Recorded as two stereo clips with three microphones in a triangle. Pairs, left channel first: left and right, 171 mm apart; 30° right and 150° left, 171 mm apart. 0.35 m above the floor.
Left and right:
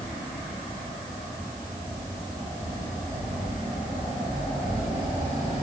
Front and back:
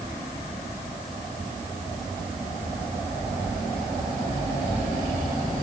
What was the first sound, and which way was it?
Only background noise.